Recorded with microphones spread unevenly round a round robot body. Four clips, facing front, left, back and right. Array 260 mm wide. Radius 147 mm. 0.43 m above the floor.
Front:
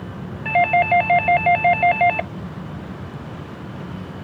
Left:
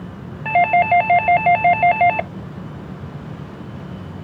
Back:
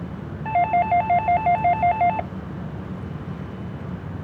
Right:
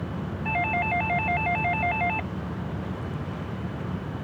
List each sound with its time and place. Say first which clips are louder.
0.5 s a doorbell: left 13 dB, front 2 dB; 75° left